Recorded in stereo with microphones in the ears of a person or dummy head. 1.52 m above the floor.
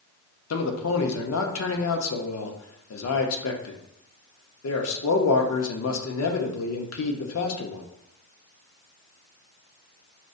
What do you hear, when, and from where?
0.5 s a man speaking: 85° left, 0.8 m